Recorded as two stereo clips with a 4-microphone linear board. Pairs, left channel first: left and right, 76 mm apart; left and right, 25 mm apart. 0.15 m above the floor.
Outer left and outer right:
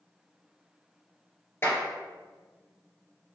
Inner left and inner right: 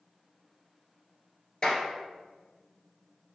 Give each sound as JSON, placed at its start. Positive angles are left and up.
{"t": 1.6, "sound": "a clap", "side_deg": 30, "distance_m": 2.0}